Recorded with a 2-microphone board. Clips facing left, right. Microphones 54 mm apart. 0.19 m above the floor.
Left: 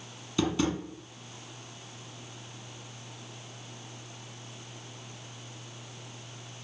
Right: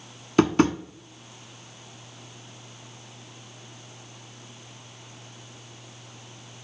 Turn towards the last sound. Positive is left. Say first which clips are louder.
# right 8 dB
turn(degrees=-55)  # may be behind; listen again after turning